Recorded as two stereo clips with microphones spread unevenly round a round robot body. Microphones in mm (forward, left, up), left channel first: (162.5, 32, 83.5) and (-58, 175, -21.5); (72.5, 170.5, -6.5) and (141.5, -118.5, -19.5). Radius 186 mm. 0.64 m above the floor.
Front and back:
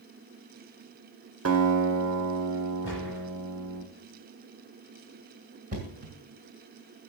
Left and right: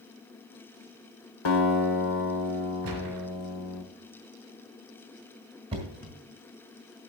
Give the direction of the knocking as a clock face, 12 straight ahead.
5 o'clock.